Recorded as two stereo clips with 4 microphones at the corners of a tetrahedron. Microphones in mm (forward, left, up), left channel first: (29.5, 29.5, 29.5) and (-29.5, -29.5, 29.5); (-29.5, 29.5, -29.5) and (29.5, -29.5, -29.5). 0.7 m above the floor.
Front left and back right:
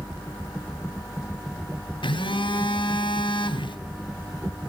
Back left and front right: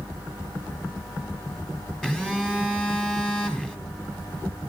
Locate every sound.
2.0 s a phone buzzing: 55° left, 3 m